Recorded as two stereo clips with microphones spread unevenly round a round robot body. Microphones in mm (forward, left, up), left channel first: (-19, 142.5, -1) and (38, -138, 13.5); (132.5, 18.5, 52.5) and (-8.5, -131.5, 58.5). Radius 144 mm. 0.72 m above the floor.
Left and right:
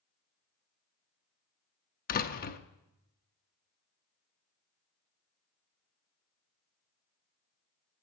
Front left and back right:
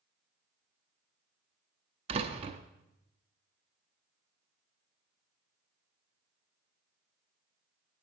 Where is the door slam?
160° left, 0.6 m.